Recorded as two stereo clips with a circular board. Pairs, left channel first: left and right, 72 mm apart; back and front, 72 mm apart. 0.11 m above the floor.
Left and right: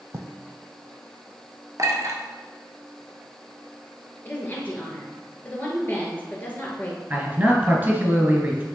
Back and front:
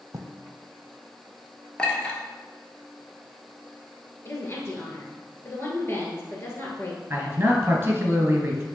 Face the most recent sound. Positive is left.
turn(degrees=-45)